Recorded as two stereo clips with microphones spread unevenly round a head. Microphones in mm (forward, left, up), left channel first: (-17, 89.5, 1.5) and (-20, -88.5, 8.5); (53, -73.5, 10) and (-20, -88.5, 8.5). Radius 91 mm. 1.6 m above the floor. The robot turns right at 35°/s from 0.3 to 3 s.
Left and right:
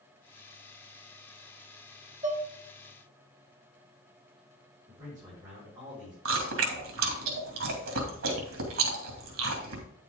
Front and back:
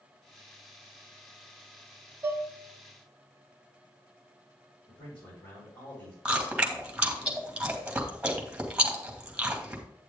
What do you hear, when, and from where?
2.2 s dishes clattering: 125° right, 1.2 m; by 2.5 s 115° right, 1.2 m
4.9 s a man speaking: 20° right, 4.5 m
6.2 s chewing: 95° right, 2.5 m